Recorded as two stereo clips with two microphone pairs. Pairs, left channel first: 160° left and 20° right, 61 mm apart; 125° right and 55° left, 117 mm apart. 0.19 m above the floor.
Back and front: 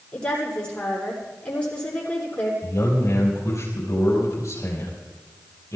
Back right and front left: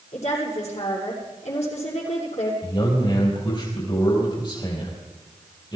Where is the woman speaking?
130° right, 7 m.